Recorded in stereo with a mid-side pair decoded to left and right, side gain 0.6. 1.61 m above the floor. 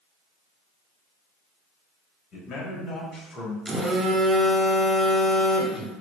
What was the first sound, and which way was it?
A man speaking, 45° left.